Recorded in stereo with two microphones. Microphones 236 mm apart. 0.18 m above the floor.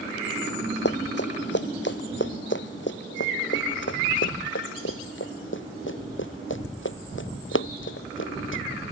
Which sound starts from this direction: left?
Running footsteps, at 0.8 s.